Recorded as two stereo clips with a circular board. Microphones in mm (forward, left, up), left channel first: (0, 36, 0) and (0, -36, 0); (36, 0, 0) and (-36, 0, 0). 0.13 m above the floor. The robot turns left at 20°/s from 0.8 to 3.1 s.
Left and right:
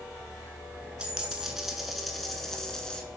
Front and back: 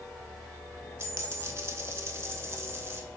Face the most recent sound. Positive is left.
turn(degrees=160)